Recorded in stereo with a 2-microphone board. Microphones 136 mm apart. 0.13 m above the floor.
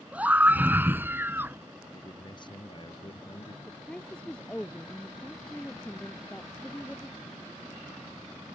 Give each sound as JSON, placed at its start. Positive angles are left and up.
{"t": 0.1, "sound": "a scream", "side_deg": -10}
{"t": 1.9, "sound": "a man speaking", "side_deg": 35}
{"t": 3.7, "sound": "a woman speaking", "side_deg": 5}